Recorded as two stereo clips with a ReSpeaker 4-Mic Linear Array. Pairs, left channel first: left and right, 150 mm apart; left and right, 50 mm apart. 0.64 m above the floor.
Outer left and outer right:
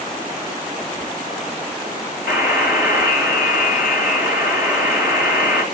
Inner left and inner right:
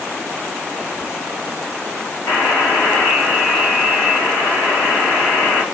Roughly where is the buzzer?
Left.